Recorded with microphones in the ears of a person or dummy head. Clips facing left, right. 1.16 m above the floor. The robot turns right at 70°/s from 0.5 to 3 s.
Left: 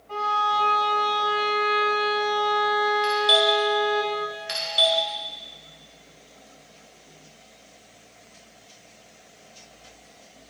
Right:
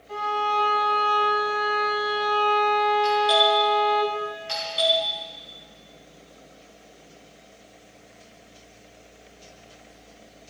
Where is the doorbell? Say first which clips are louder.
Right 2 dB; 20° left (ahead or behind), 1.8 m.